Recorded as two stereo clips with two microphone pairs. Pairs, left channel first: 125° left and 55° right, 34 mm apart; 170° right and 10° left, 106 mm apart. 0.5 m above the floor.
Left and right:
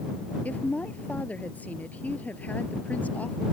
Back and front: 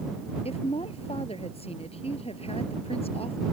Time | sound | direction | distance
0.5 | a woman speaking | 165° left | ?